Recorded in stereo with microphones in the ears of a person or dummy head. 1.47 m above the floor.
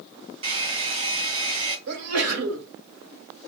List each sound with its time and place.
0.4 s a hair dryer: 30° right (ahead or behind), 2 m
1.9 s a sneeze: 80° right, 1.5 m